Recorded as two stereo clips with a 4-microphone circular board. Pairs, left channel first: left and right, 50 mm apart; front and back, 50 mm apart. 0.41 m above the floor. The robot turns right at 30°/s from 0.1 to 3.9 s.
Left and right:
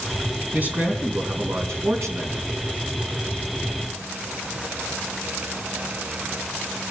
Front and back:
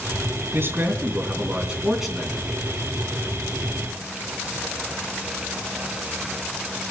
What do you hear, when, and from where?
0.5 s a man speaking: 145° right, 3.5 m; by 2.5 s 85° right, 3.5 m